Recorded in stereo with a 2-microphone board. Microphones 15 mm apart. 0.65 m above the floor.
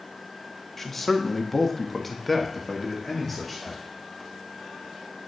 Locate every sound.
0.8 s a man speaking: 20° left (ahead or behind), 0.8 m; by 3.8 s 10° right (ahead or behind), 1.6 m